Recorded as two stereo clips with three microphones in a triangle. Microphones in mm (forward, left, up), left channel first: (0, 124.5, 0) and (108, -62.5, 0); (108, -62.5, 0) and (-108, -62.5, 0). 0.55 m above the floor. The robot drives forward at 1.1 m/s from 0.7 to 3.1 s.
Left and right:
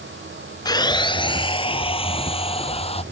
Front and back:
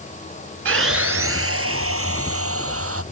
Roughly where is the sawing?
Behind.